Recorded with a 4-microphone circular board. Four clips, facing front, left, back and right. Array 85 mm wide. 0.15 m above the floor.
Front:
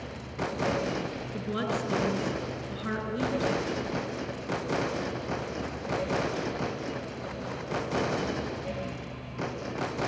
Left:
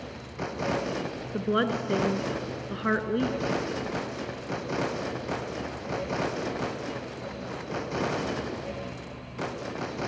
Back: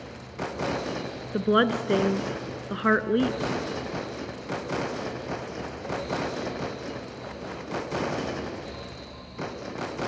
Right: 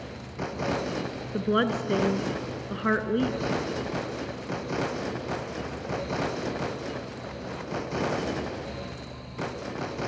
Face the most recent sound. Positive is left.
turn(degrees=-175)